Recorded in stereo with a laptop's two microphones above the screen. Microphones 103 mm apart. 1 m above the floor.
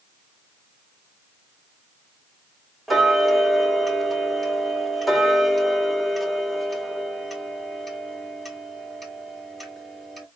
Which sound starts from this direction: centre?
Ticking, at 2.9 s.